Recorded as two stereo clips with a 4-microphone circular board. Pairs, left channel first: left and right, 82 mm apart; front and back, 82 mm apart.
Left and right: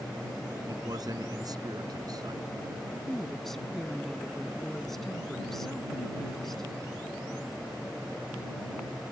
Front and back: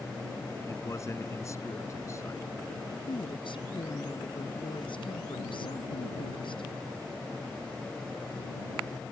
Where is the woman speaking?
5° left.